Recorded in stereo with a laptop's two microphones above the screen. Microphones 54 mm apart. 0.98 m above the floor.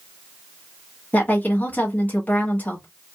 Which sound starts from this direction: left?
A woman speaking, at 1.1 s.